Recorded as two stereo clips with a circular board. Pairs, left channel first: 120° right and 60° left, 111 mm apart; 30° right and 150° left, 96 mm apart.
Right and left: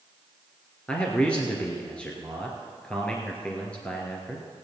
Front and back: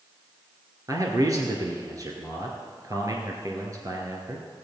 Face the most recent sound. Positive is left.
turn(degrees=165)